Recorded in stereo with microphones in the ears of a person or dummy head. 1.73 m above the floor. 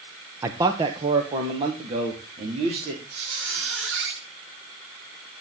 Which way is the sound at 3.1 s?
75° right (ahead or behind).